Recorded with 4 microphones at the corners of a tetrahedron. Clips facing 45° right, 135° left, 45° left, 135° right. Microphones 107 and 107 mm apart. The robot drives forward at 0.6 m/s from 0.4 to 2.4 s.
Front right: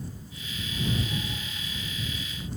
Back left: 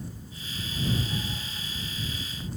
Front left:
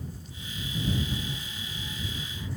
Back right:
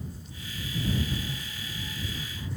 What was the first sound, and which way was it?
Only background noise.